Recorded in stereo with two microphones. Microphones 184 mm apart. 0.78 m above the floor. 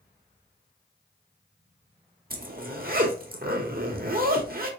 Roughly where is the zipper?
Right.